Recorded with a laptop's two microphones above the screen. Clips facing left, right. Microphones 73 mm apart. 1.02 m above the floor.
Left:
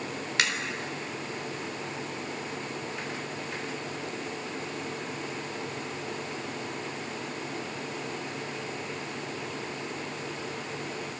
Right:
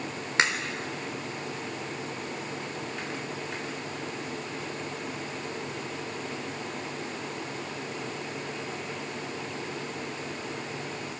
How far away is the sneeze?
No sneeze in this recording.